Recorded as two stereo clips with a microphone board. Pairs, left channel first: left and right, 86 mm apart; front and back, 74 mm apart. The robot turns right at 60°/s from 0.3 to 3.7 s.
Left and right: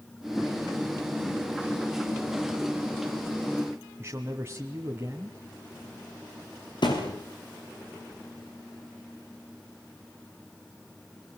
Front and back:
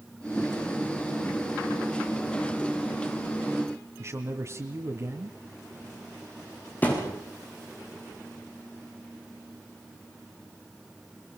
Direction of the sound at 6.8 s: 65° left.